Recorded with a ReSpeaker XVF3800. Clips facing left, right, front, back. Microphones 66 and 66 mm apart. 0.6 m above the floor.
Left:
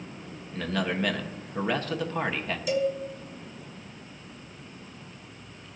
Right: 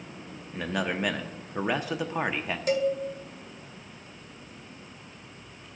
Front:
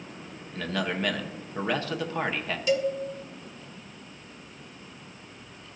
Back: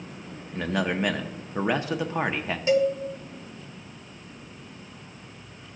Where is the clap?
No clap in this recording.